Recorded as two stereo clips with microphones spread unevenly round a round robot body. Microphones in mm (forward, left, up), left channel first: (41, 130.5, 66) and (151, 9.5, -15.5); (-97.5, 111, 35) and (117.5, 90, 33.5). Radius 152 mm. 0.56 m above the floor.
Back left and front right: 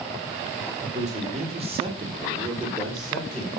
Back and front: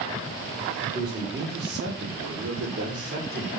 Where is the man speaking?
60° right, 2.5 m; by 3.5 s 35° left, 2.5 m.